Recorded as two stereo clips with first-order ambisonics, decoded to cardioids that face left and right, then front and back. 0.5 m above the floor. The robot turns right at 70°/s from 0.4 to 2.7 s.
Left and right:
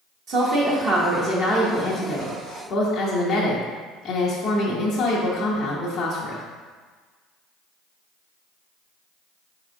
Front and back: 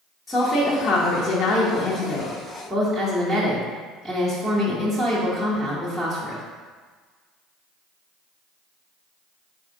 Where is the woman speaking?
85° right, 0.8 m; by 6.4 s 75° left, 0.8 m.